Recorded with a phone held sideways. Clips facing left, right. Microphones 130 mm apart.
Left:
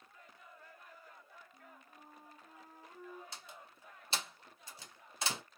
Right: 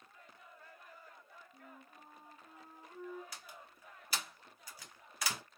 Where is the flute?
20° right (ahead or behind), 1.6 m.